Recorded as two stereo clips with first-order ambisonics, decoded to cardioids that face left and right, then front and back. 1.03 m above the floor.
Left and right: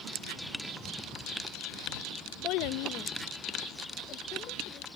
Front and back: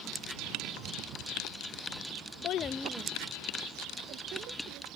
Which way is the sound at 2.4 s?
45° left.